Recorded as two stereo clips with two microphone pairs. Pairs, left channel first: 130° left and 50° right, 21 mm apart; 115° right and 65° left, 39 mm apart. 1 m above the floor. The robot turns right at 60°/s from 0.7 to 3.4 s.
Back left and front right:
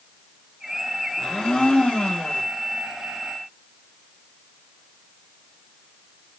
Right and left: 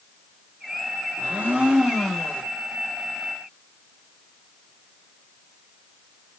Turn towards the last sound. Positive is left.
turn(degrees=-125)